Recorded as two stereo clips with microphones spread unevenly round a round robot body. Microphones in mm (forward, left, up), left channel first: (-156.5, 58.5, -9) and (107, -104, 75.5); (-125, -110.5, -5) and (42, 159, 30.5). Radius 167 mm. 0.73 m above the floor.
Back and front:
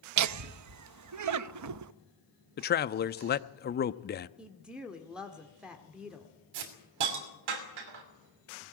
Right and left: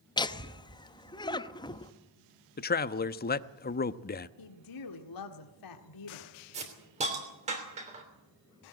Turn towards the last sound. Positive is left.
turn(degrees=-15)